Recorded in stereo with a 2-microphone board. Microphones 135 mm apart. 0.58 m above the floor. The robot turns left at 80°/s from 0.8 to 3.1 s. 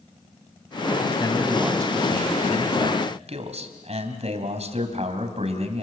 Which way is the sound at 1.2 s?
25° left.